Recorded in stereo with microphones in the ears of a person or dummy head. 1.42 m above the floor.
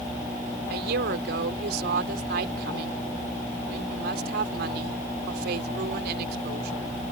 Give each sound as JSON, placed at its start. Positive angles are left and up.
{"t": 0.7, "sound": "a woman speaking", "side_deg": -60}